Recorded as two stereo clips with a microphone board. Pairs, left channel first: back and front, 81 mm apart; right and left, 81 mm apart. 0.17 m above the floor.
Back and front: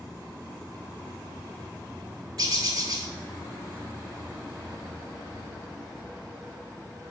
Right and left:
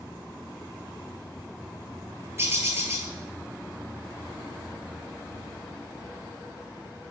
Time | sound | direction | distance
2.4 | a bird | 35° left | 0.6 m